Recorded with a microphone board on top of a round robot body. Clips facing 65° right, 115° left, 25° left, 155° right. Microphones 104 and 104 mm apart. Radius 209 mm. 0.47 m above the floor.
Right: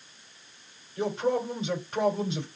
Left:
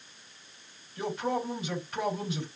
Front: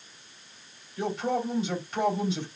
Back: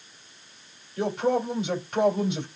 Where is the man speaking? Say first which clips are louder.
Right 4 dB, back 4 dB; 130° right, 3 m.